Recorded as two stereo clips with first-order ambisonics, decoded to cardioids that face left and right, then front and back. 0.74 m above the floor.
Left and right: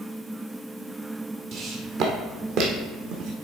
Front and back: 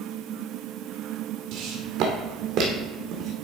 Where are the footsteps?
140° right, 1.5 m; by 3.3 s 125° right, 2.5 m.